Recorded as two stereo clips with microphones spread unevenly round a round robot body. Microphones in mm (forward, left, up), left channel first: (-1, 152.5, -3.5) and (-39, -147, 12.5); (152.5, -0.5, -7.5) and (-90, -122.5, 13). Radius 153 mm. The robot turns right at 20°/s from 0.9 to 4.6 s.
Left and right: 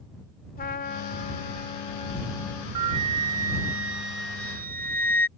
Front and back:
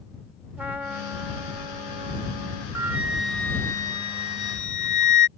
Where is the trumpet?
120° left; by 2.6 s 155° left.